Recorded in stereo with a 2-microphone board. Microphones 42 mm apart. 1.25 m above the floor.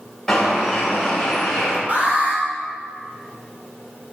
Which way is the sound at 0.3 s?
10° left (ahead or behind).